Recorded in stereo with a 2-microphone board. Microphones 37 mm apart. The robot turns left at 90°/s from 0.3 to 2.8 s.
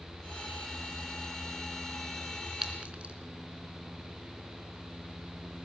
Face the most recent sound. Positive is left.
turn(degrees=-35)  # may be behind; listen again after turning